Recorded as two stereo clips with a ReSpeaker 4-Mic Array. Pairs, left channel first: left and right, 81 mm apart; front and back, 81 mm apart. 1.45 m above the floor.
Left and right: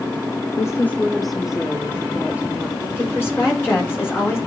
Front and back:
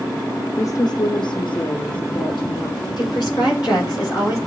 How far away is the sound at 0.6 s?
About 0.5 m.